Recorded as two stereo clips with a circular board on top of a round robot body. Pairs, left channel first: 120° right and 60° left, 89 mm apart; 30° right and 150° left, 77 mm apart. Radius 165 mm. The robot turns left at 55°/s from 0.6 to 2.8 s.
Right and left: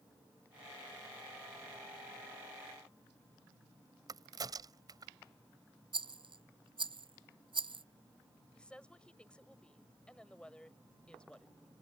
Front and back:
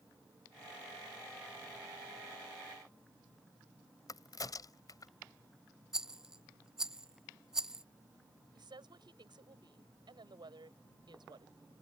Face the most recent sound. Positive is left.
turn(degrees=160)